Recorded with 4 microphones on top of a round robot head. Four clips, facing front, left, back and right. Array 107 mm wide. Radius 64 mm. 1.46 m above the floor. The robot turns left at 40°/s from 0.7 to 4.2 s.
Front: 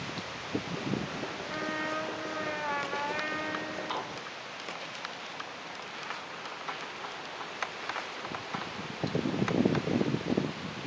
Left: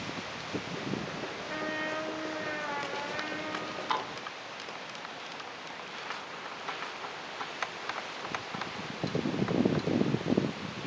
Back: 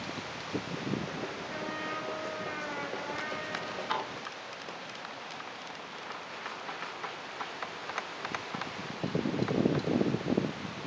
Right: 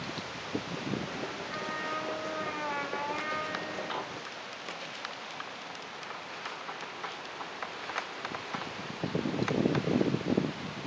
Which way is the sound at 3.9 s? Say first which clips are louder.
Left 4 dB, back 5 dB; 80° left.